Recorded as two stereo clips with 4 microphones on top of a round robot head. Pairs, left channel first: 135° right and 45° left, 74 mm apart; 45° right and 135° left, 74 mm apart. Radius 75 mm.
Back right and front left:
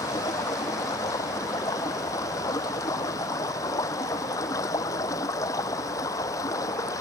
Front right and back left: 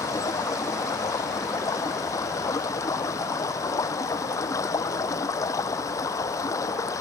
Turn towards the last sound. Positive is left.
turn(degrees=-90)